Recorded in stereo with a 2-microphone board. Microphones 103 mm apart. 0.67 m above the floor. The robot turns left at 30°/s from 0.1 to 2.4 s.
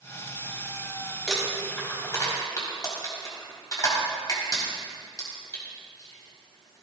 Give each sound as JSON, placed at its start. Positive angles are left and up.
{"t": 1.3, "sound": "crumpling", "side_deg": 5, "distance_m": 5.0}